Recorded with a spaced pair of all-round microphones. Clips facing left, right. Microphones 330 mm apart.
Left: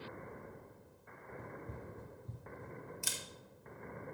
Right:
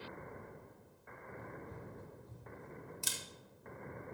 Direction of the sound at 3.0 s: 45° right (ahead or behind).